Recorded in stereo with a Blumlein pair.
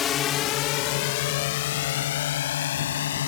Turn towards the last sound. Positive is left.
turn(degrees=60)